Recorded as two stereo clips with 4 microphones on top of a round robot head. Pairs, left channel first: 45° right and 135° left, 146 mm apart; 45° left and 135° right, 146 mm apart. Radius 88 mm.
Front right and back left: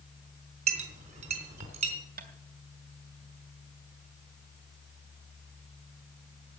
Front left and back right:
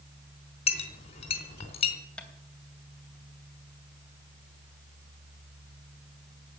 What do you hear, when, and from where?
0.7 s a clink: 90° left, 3.5 m
2.2 s tapping: 125° left, 2.5 m